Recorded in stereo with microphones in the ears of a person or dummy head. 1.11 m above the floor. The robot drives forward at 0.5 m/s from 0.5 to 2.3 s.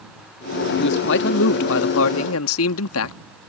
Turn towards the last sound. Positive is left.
turn(degrees=75)  # may be behind; listen again after turning